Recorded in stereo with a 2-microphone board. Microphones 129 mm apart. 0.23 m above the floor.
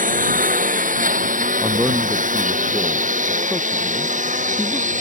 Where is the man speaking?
5° right (ahead or behind).